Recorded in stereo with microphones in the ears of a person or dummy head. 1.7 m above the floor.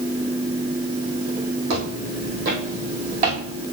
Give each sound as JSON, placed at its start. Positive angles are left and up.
{"t": 1.7, "sound": "footsteps", "side_deg": -55, "distance_m": 3.0}